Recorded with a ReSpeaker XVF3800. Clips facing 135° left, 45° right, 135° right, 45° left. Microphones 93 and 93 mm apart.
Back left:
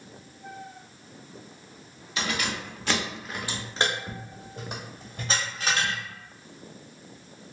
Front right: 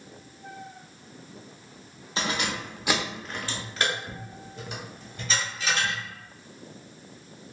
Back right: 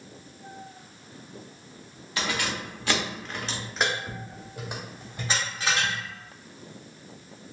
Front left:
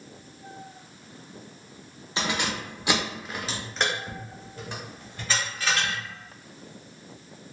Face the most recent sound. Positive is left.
turn(degrees=160)